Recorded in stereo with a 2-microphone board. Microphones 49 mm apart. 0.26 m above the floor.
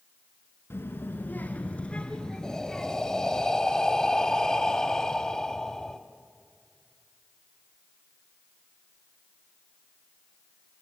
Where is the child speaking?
60° left (ahead or behind), 2 m; by 3.4 s centre (ahead or behind), 3.5 m.